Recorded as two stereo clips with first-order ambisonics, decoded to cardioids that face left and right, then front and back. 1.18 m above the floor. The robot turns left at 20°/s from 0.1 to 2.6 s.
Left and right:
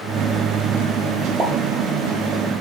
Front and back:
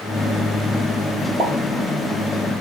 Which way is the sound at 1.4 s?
130° right.